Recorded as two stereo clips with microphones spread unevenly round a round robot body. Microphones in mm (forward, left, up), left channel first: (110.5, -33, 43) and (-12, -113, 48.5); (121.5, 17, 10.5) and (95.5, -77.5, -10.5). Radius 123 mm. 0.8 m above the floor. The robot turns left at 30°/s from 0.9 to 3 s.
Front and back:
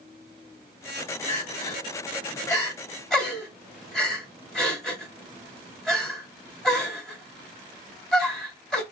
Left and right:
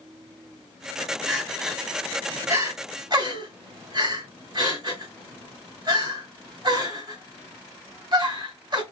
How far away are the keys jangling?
No keys jangling in this recording.